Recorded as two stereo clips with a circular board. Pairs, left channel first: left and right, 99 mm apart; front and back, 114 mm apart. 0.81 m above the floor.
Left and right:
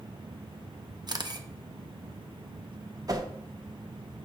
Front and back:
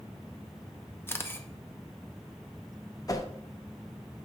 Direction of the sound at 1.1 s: 65° right.